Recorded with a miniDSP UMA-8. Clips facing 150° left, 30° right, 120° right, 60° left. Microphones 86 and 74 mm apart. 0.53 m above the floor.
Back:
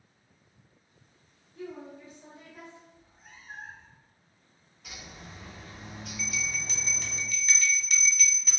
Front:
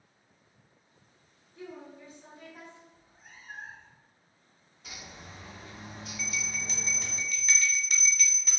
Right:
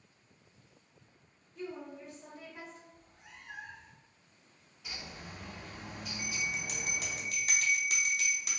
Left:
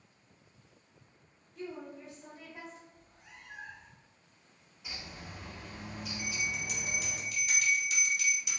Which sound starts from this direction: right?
A cat meowing, at 2.9 s.